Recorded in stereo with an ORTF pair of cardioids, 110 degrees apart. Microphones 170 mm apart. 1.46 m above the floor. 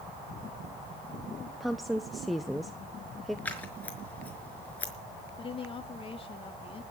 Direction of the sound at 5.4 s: 35° left.